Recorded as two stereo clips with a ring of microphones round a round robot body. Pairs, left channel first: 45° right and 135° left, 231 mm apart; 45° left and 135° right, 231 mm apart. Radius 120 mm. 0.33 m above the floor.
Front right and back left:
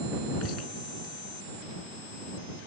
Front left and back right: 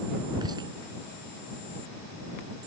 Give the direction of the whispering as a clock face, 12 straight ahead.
2 o'clock.